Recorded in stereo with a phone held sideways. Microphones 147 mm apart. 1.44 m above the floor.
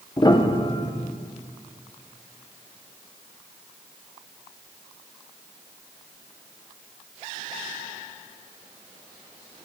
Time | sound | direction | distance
0.2 | a piano | 30° left (ahead or behind) | 0.6 m